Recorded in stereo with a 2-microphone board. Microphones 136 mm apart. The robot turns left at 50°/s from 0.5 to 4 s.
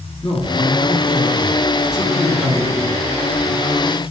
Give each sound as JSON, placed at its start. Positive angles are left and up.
{"t": 0.2, "sound": "a man speaking", "azimuth_deg": 70, "distance_m": 2.5}